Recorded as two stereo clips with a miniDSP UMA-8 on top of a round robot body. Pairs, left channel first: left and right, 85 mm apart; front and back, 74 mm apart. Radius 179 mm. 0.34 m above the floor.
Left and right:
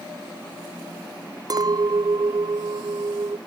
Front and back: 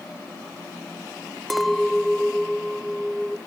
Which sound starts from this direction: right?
A clink, at 1.5 s.